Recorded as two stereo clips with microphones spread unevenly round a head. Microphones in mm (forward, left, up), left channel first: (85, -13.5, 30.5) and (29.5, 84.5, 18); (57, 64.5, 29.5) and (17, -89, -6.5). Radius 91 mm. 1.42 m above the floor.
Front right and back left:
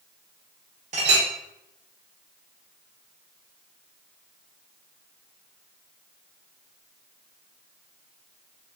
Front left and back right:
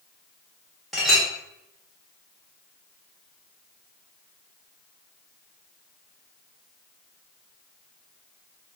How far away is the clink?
About 1.0 m.